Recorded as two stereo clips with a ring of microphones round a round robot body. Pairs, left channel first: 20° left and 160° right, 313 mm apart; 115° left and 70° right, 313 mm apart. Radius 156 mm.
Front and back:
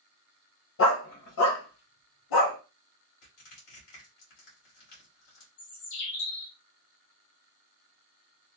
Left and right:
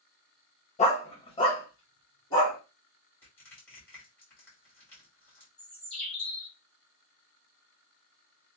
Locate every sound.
0.8 s a dog barking: 50° left, 0.7 m; by 2.6 s 35° left, 2 m
3.2 s crushing: 30° left, 2.0 m
5.6 s a bird: 25° left, 1.2 m